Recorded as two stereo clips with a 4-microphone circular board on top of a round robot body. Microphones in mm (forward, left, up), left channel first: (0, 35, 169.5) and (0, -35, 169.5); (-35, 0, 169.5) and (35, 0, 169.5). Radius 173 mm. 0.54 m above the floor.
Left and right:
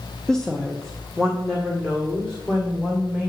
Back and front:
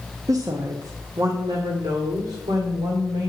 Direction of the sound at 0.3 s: 10° left.